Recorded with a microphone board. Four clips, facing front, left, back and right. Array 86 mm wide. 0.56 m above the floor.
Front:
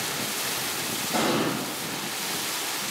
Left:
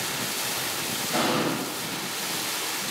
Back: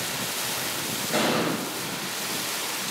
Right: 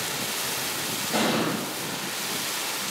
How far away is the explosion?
About 1.9 m.